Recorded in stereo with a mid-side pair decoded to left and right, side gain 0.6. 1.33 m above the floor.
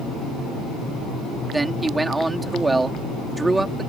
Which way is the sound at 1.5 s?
15° right.